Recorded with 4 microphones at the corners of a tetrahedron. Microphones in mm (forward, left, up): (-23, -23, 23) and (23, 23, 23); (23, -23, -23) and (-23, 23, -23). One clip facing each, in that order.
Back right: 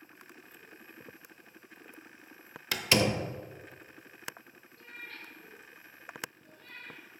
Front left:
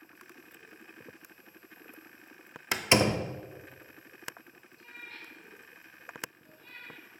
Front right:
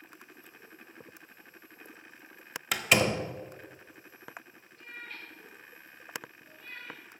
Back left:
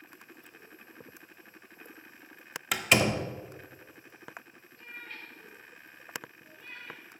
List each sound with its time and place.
2.7 s a door slam: 45° left, 0.6 m
4.8 s a cat meowing: 135° right, 2.5 m